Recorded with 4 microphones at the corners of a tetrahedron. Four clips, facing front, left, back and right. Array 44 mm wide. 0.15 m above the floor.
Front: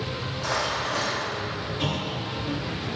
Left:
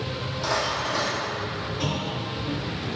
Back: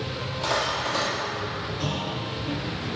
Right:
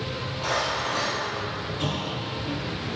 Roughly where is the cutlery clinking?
Behind.